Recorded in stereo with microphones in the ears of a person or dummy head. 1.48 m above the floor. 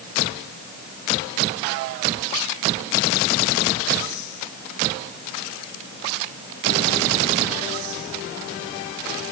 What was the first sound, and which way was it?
Only background noise.